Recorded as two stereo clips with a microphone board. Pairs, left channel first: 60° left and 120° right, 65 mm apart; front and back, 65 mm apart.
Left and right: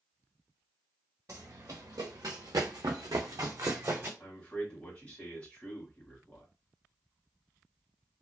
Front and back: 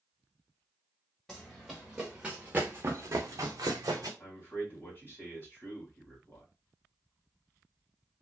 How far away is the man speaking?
About 1.5 m.